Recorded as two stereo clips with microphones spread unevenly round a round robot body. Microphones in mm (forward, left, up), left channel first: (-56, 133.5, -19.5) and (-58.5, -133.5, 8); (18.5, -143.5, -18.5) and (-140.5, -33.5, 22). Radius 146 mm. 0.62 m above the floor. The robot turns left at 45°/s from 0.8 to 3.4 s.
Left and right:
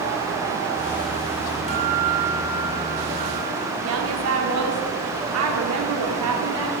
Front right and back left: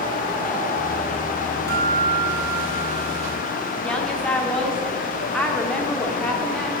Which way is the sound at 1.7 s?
155° left.